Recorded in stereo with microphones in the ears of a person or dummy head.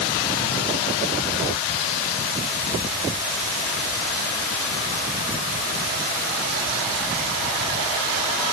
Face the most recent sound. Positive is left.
No sound to turn to.